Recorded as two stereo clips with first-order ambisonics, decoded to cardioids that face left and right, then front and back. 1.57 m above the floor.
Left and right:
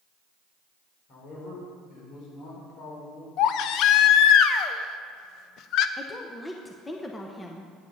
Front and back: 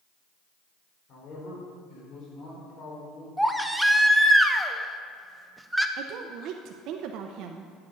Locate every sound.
1.1 s a man speaking: 50° left, 4.5 m
3.4 s a baby crying: 90° left, 0.5 m
6.0 s a woman speaking: 170° left, 0.7 m